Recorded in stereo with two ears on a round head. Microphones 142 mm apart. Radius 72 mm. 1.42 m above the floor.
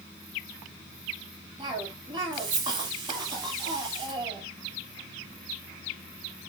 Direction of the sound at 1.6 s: 30° right (ahead or behind).